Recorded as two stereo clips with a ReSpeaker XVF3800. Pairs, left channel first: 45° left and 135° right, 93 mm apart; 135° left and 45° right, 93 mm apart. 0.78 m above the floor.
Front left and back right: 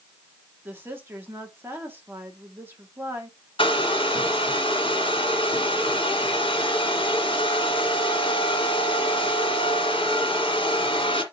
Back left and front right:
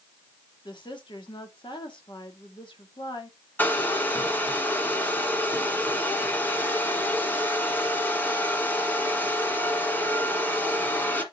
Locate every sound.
0.7 s a woman speaking: 160° left, 1.9 m
3.6 s a hair dryer: 65° left, 1.7 m